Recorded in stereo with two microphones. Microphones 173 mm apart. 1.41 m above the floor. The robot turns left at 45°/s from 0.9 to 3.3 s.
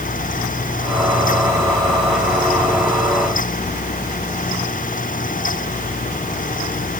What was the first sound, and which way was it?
Only background noise.